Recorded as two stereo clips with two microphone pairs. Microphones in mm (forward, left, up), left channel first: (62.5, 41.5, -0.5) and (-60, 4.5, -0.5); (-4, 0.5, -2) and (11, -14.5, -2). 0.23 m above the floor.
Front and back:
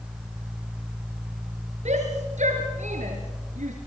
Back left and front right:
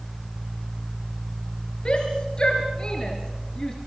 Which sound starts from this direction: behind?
A shout, at 1.9 s.